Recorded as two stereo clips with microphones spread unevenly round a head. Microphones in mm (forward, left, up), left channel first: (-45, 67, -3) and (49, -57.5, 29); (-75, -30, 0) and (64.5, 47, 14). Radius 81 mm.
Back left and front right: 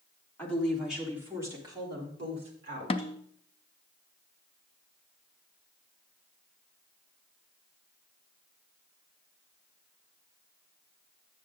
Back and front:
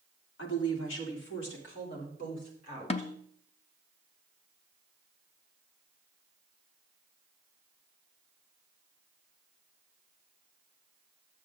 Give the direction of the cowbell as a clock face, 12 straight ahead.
I don't hear a cowbell.